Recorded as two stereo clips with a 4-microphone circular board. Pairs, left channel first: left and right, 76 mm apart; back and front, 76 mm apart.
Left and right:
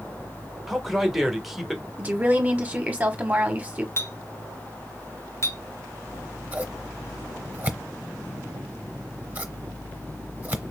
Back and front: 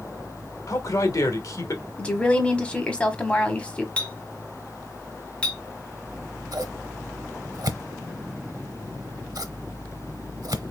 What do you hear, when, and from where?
0.7 s a man speaking: 175° right, 1.1 m
2.0 s a woman speaking: 125° right, 1.1 m
4.0 s a clink: 110° left, 0.8 m
6.1 s scissors: 25° right, 0.8 m